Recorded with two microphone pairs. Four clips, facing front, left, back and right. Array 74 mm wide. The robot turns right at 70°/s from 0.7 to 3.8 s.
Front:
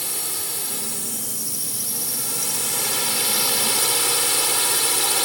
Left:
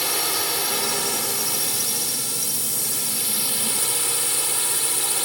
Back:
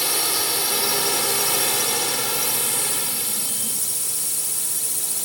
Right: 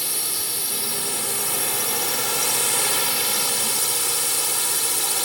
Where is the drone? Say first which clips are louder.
Left 7 dB, back 8 dB; 130° left; by 5.3 s 15° right.